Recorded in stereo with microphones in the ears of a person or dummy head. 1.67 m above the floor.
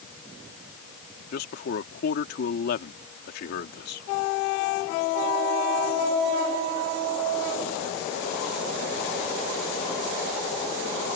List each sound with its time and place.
1.3 s a man speaking: 60° left (ahead or behind)